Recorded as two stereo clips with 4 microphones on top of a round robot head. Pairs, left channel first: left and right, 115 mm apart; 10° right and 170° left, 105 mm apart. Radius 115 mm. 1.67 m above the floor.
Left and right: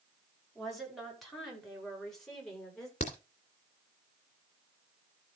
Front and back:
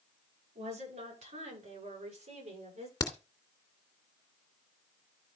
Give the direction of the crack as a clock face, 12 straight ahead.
11 o'clock.